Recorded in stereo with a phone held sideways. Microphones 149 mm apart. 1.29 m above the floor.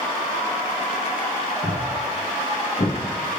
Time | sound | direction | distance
1.6 | footsteps | 70° left (ahead or behind) | 4 m